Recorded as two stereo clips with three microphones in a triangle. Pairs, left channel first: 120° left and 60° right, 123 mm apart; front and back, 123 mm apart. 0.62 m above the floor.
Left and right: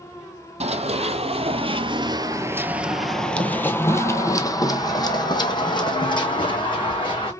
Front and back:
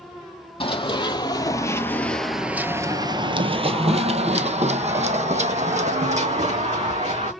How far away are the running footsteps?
About 1.2 m.